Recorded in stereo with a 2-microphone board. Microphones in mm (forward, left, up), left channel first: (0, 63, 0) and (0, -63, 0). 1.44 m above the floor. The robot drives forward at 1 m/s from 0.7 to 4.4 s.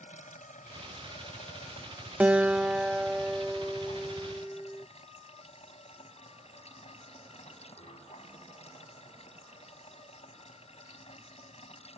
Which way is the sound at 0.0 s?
85° left.